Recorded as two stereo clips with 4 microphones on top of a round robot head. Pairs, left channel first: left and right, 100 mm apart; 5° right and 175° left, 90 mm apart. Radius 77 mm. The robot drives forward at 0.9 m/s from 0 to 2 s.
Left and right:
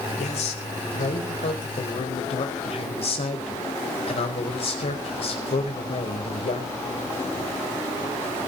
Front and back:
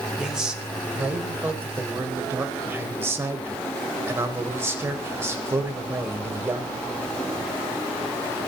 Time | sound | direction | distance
0.2 | a man speaking | 90° left | 4.5 m